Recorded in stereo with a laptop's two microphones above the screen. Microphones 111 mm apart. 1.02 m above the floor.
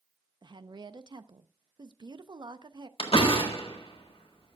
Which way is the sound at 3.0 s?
65° left (ahead or behind).